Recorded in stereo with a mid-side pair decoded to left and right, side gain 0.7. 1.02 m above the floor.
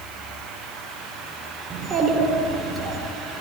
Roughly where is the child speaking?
Ahead right.